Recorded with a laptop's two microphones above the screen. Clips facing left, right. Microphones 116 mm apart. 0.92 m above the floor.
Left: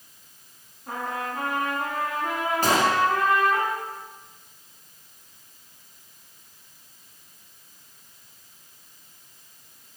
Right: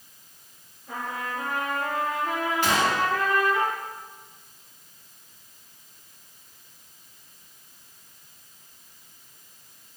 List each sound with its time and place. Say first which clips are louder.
0.9 s a trumpet: left 2 dB; 65° left (ahead or behind), 4 m
2.6 s a gunshot: left 4 dB; 40° left (ahead or behind), 1.5 m